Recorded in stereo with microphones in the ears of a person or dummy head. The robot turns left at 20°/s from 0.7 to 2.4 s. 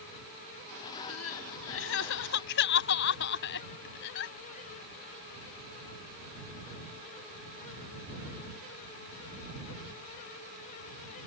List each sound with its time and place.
1.1 s crying: 85° left; by 4.3 s 65° left (ahead or behind)